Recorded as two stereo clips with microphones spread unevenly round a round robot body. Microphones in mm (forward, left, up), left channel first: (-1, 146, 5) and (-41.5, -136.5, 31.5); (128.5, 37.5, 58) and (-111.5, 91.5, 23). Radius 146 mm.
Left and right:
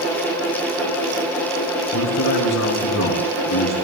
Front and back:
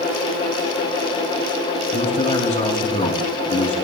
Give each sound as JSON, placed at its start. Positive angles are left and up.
{"t": 1.9, "sound": "a man speaking", "azimuth_deg": 50, "distance_m": 4.0}